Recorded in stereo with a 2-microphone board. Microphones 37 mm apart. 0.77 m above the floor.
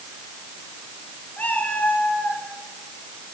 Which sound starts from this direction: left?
A cat meowing, at 1.4 s.